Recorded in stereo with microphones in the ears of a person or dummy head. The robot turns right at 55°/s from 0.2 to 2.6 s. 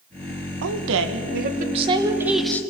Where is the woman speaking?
100° right, 2 m; by 2.6 s 10° left, 2 m.